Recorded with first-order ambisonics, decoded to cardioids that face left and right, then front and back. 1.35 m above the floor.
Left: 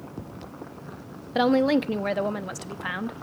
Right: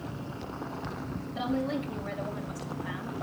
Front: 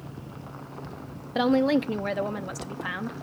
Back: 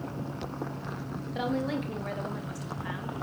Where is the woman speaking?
60° left, 0.8 m.